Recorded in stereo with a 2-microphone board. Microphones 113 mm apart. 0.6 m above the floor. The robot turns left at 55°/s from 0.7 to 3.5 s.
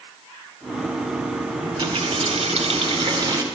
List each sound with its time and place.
1.6 s a running tap: 50° right, 1.3 m; by 3.4 s 150° right, 1.3 m